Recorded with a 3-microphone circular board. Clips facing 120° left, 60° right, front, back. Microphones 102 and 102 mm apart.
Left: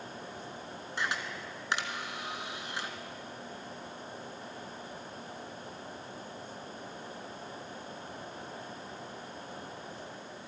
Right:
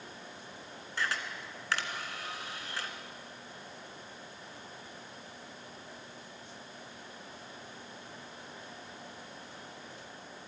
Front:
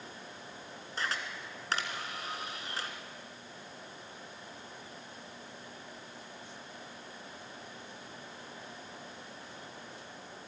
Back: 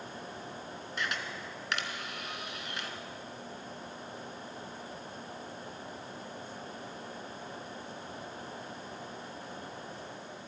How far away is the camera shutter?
About 2 m.